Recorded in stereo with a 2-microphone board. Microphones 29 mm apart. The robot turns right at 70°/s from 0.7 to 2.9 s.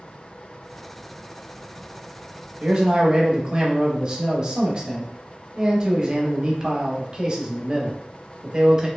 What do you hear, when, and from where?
2.6 s a man speaking: 45° right (ahead or behind), 0.8 m; by 8.9 s 25° right (ahead or behind), 0.8 m